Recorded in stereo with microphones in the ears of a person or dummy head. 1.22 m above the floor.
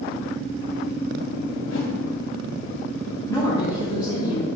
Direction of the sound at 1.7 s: 75° left (ahead or behind).